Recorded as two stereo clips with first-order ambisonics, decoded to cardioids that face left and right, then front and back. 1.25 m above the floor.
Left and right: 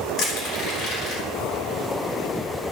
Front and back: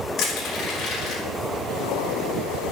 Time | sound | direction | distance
0.2 | crushing | 45° left | 3.5 m